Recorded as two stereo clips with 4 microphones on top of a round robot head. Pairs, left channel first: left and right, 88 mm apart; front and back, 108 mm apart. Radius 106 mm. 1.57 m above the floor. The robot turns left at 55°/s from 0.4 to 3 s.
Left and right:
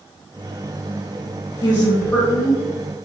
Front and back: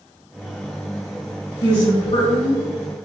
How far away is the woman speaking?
About 1.5 m.